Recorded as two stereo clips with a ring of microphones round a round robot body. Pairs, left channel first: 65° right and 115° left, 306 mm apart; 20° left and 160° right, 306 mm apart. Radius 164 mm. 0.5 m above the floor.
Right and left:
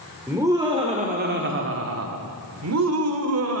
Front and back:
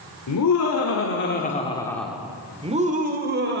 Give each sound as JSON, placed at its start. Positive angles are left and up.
{"t": 0.3, "sound": "laughter", "azimuth_deg": 30, "distance_m": 2.5}